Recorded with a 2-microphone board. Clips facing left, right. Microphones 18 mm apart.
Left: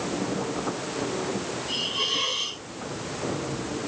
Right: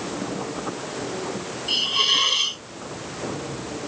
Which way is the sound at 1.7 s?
55° right (ahead or behind).